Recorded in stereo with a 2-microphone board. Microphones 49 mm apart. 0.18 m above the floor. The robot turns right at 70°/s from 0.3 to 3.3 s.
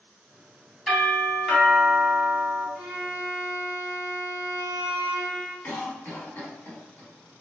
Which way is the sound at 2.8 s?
25° right.